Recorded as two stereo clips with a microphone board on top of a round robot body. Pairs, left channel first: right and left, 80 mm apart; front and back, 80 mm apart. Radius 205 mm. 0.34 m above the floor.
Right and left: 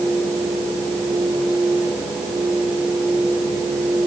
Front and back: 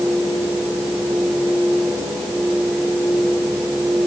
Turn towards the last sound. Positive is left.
No sound to turn to.